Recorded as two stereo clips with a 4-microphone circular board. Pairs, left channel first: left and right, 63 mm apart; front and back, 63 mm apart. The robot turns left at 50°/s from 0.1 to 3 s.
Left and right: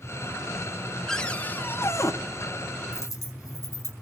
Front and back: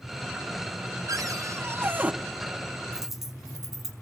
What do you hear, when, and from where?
1.1 s a cupboard door: 170° left, 1.0 m; by 2.1 s 115° left, 1.0 m
2.9 s a dropped coin: 100° left, 4.5 m; by 3.9 s 95° left, 4.5 m